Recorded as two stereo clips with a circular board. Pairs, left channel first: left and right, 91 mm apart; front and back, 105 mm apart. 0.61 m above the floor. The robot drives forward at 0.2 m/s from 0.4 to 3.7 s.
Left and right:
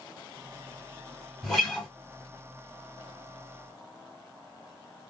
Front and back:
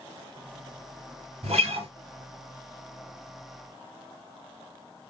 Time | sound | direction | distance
1.4 | a guitar | 175° left | 1.6 m